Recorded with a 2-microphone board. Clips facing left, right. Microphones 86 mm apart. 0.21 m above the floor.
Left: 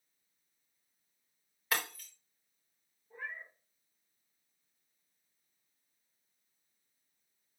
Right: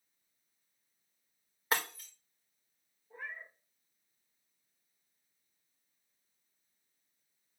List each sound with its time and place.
1.7 s breaking glass: 30° right (ahead or behind), 4 m
3.1 s a cat meowing: 10° right (ahead or behind), 6 m